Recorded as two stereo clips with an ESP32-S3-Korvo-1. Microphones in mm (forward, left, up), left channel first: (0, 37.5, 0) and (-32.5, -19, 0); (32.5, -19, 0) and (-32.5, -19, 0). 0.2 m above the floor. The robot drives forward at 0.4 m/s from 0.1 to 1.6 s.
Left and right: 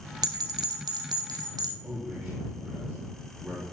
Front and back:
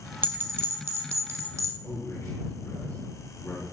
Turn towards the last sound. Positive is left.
turn(degrees=-55)